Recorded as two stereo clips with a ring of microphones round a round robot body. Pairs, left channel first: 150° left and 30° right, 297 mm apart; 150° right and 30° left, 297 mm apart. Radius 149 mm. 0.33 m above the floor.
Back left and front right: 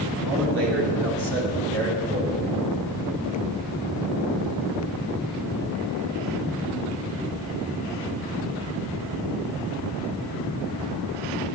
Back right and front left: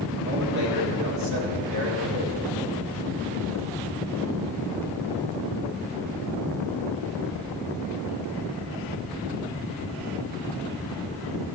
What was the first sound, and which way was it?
A man speaking, 5° right.